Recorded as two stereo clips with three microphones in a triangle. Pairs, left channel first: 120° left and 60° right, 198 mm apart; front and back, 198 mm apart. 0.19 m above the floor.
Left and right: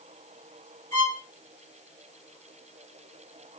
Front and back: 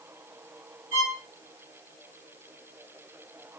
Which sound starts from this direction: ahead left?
A violin, at 0.9 s.